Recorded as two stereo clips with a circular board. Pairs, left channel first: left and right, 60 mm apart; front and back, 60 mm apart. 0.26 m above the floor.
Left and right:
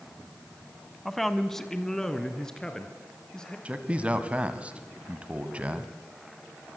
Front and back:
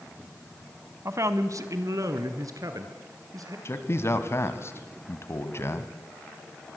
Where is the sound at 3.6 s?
25° right, 1.9 m.